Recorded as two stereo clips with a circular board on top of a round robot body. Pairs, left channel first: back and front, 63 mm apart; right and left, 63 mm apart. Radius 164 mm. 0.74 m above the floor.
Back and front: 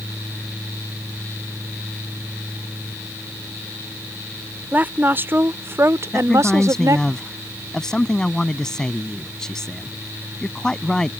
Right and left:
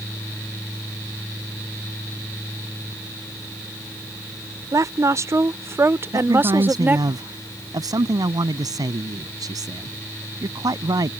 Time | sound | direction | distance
4.7 | a woman speaking | 60° left | ?
6.1 | a man speaking | 100° left | ?